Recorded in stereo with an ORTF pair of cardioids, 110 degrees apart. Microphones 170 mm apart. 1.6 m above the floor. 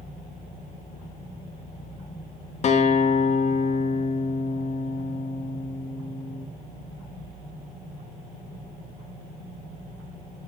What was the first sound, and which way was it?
A guitar, 40° left.